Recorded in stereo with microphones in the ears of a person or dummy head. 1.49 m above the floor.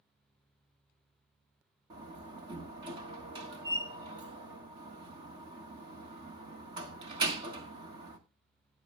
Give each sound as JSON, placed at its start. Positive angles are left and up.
{"t": 1.9, "sound": "a door slam", "side_deg": -35, "distance_m": 1.2}